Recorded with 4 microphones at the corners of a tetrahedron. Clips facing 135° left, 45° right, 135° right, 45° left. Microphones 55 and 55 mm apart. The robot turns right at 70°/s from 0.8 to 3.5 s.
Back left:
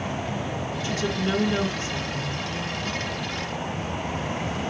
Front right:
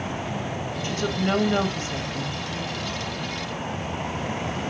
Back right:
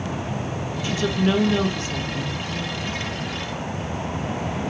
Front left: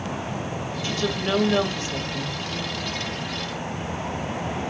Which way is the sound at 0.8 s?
70° right.